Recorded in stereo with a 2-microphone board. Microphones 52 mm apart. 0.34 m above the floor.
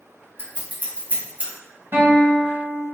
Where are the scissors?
35° right (ahead or behind), 1.3 m.